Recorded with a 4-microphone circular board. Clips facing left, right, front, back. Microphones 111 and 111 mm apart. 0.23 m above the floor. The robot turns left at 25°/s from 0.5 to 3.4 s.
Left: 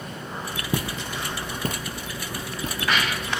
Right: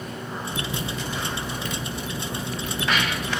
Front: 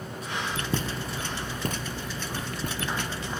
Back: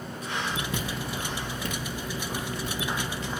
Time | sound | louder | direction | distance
0.7 | footsteps | left 1 dB, front 1 dB | 55° left | 3 m